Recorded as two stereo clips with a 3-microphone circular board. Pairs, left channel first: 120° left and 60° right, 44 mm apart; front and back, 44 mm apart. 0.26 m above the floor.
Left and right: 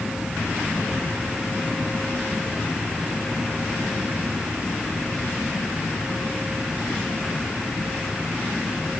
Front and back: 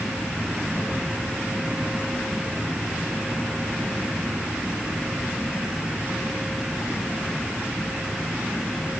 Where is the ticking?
No ticking in this recording.